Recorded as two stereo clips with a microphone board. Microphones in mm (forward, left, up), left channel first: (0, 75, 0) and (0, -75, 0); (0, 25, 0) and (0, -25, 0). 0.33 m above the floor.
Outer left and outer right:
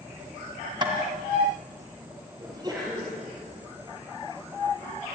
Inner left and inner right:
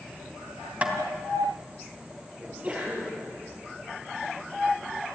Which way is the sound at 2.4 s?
30° right (ahead or behind).